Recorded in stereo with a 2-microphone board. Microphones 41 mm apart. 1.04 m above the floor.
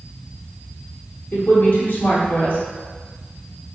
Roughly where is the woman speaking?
Left.